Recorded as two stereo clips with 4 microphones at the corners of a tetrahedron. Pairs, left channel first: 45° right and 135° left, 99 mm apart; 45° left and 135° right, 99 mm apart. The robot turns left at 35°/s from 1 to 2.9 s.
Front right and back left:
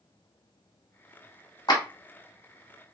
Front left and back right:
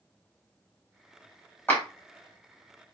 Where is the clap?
20° right, 1.1 m; by 1.8 s 30° right, 1.1 m.